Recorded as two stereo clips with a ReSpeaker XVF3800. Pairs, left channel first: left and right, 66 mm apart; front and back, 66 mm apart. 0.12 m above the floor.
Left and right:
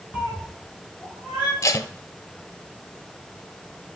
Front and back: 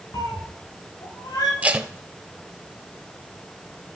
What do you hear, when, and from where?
0.1 s a cat meowing: 20° right, 4.5 m
1.6 s tape being pulled: 115° left, 0.6 m